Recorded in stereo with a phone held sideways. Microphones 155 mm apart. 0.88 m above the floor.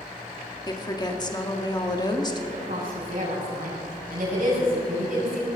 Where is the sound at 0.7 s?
25° left (ahead or behind), 1.8 m.